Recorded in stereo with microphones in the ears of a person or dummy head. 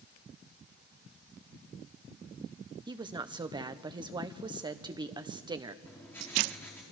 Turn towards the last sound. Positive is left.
turn(degrees=15)  # may be behind; listen again after turning